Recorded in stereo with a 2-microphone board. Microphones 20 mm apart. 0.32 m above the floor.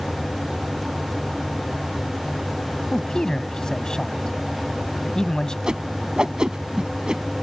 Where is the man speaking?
35° left (ahead or behind).